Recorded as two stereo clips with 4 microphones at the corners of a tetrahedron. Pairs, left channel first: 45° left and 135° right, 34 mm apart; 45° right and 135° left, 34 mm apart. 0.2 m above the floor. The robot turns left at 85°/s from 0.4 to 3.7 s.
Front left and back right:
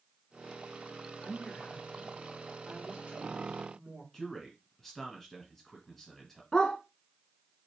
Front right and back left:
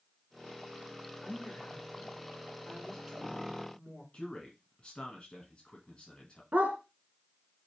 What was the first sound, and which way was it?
A woman speaking, 25° left.